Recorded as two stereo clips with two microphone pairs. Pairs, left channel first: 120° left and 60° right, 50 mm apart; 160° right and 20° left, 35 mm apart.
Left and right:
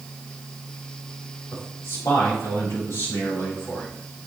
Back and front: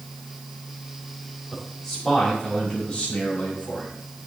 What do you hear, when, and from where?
1.5 s a man speaking: 120° left, 4.5 m; by 3.9 s 150° left, 4.5 m